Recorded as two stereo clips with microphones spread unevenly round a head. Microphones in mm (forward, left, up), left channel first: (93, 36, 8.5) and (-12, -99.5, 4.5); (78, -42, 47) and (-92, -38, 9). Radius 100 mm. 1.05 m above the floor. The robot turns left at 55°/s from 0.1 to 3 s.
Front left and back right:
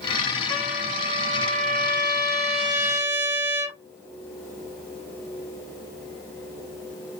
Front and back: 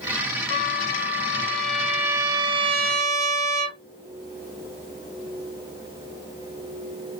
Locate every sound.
0.5 s a trumpet: 30° right, 1.2 m; by 3.8 s 170° right, 1.2 m